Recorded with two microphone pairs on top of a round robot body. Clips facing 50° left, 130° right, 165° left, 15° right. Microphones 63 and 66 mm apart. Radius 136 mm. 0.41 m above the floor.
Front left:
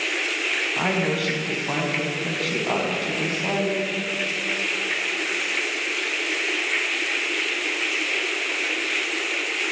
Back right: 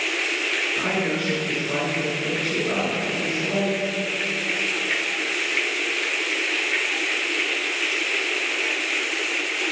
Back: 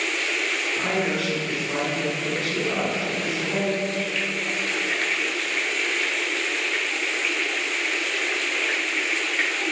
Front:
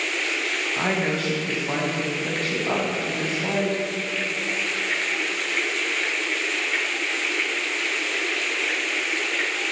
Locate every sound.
0.8 s a woman speaking: 35° left, 4.5 m